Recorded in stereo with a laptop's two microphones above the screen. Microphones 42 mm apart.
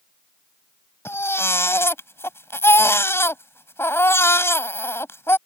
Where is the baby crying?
80° left.